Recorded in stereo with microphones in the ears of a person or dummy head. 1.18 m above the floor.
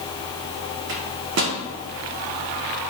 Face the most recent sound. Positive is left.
turn(degrees=-60)  # may be behind; listen again after turning